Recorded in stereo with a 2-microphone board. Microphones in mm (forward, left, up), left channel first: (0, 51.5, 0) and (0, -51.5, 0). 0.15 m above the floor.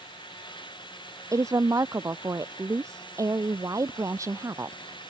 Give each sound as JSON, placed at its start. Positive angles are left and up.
{"t": 1.3, "sound": "a woman speaking", "side_deg": -30}